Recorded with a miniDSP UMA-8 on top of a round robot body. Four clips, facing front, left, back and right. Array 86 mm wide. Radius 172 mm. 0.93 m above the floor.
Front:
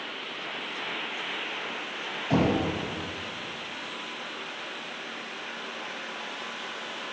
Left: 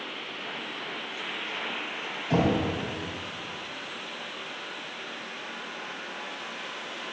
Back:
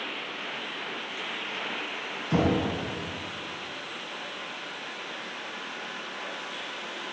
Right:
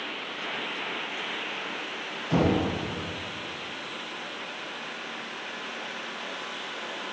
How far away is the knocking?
About 5 m.